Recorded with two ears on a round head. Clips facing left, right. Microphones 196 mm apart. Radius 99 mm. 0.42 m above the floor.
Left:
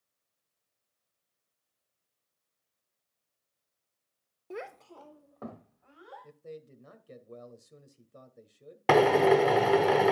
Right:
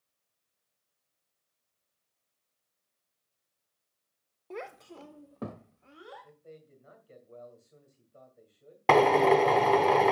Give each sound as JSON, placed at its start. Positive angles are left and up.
{"t": 4.5, "sound": "a child speaking", "side_deg": 10, "distance_m": 0.7}
{"t": 6.2, "sound": "a man speaking", "side_deg": 50, "distance_m": 2.0}
{"t": 8.9, "sound": "a drill", "side_deg": 10, "distance_m": 0.8}